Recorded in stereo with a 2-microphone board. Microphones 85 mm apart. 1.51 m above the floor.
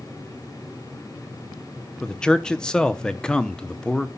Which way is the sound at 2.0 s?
10° left (ahead or behind).